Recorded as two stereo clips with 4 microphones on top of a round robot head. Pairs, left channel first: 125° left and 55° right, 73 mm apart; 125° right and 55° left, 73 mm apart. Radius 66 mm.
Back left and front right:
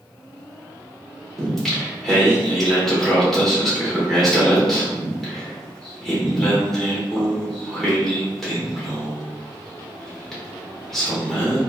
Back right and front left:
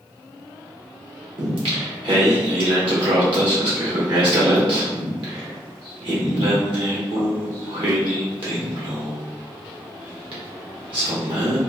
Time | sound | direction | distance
1.4 | singing | 40° left | 1.0 m